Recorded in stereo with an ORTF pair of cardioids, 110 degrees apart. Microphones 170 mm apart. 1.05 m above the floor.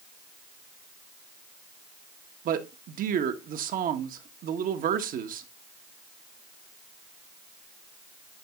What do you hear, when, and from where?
2.5 s a man speaking: 60° right, 1.4 m